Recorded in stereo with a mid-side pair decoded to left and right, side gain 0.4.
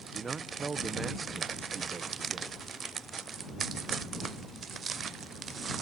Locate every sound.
0.1 s a man speaking: 40° right